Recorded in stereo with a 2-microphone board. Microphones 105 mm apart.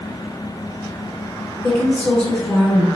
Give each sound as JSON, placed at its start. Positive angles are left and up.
{"t": 1.6, "sound": "a woman speaking", "side_deg": 10, "distance_m": 1.0}